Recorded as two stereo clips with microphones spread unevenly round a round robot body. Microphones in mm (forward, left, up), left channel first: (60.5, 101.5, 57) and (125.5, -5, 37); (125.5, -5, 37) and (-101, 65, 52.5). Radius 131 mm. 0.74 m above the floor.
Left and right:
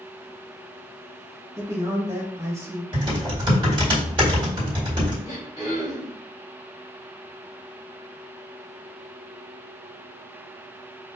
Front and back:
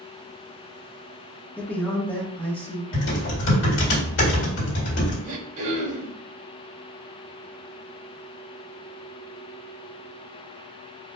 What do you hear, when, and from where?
1.6 s a man speaking: 90° right, 1.0 m
2.9 s typing on a keyboard: 25° right, 1.9 m
5.2 s throat clearing: 175° right, 1.9 m